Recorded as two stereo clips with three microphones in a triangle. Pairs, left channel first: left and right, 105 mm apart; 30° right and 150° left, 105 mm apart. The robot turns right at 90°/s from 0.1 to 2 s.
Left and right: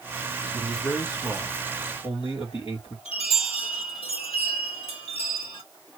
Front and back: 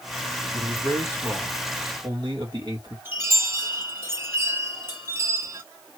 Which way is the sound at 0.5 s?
20° right.